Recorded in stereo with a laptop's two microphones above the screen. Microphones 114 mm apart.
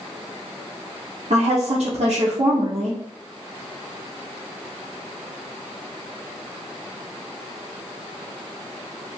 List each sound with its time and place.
1.3 s a woman speaking: 65° right (ahead or behind), 0.8 m